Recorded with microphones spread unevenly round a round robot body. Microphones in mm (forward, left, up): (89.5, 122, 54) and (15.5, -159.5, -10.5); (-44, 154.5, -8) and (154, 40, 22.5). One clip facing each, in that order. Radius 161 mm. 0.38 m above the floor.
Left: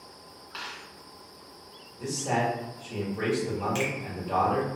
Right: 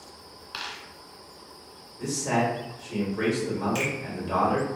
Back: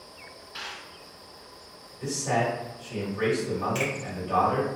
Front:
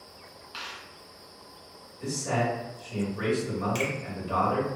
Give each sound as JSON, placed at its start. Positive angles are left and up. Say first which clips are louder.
{"t": 0.5, "sound": "a dropped coin", "louder": "right 1 dB, back 1 dB", "azimuth_deg": -70, "distance_m": 1.3}
{"t": 2.0, "sound": "a man speaking", "louder": "right 3 dB, back 1 dB", "azimuth_deg": -130, "distance_m": 1.4}
{"t": 3.8, "sound": "a finger snap", "louder": "even, back 1 dB", "azimuth_deg": -25, "distance_m": 1.4}